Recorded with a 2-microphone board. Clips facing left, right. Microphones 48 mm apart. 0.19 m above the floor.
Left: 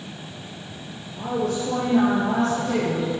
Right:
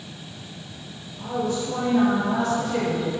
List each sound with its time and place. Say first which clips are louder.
1.2 s a woman speaking: left 1 dB; 75° left (ahead or behind), 3.5 m; by 3.1 s 65° left (ahead or behind), 4 m